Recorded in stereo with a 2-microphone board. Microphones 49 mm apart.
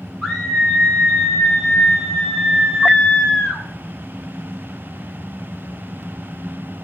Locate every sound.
0.2 s a scream: 5° left (ahead or behind), 5 m